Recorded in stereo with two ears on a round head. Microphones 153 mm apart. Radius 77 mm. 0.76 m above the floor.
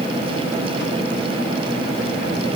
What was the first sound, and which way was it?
Only background noise.